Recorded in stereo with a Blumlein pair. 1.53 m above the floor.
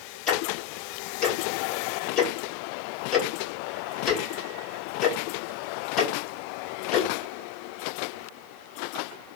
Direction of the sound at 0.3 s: 35° left.